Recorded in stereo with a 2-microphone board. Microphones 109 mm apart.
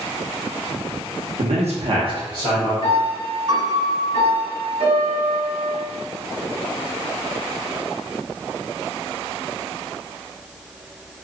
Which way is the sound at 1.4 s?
65° right (ahead or behind).